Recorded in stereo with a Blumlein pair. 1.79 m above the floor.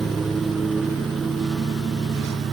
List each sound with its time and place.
0.0 s a lawn mower: 15° right; by 2.5 s 20° right